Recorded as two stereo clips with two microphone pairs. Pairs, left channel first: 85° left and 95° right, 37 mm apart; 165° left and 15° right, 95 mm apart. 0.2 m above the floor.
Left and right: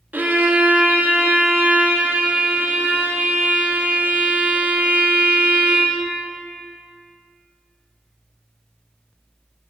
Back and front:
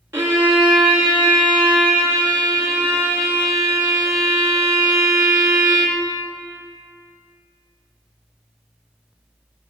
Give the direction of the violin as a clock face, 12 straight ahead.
2 o'clock.